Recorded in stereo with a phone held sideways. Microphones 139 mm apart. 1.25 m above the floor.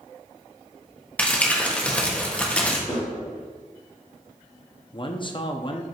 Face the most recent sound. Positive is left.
turn(degrees=35)  # may be behind; listen again after turning